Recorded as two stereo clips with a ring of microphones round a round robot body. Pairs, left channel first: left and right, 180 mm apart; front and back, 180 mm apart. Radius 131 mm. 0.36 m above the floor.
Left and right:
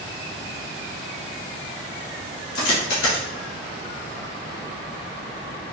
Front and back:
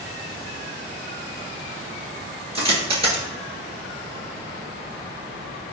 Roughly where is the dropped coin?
Behind left.